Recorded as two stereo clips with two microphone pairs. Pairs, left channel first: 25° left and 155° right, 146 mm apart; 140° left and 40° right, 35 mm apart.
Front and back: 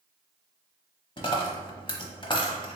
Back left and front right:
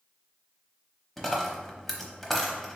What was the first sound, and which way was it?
A dropped coin, 60° left.